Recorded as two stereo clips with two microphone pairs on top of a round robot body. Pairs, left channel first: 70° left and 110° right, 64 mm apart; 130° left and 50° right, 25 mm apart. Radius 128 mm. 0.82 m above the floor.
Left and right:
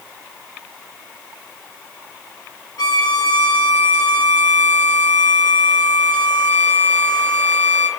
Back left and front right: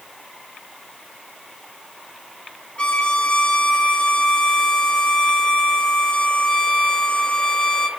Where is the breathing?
No breathing in this recording.